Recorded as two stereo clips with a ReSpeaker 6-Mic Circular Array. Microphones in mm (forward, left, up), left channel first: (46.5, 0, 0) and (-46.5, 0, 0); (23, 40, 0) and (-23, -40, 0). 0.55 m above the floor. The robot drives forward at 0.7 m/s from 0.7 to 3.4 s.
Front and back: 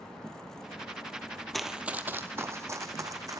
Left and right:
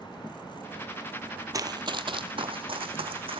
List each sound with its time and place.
1.5 s running footsteps: 85° right, 0.7 m; by 3.4 s 130° right, 2 m